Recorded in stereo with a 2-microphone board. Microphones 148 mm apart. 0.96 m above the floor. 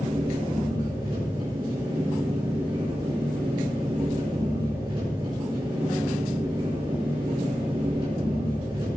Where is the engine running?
35° right (ahead or behind), 8.5 m.